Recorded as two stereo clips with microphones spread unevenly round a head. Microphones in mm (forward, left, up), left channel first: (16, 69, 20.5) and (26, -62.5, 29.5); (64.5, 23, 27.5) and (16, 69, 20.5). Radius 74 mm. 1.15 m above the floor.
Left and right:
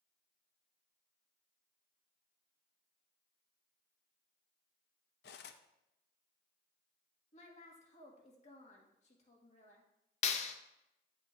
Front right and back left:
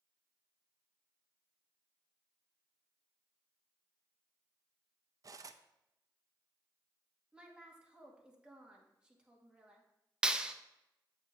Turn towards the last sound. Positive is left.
turn(degrees=55)